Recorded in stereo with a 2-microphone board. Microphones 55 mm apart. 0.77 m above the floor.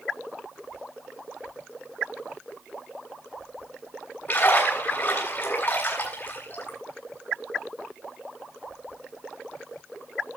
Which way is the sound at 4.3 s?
45° left (ahead or behind).